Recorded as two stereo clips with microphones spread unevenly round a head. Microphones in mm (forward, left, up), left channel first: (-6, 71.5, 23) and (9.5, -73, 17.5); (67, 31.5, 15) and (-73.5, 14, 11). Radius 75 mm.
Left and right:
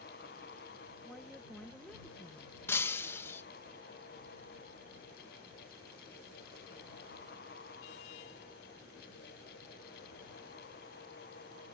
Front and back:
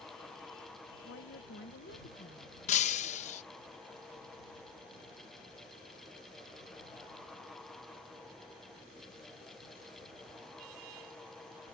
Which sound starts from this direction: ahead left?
Breaking glass, at 2.7 s.